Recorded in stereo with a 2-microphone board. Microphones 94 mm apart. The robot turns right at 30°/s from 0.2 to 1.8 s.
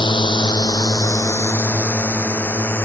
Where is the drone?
55° left (ahead or behind); by 2.9 s 25° left (ahead or behind).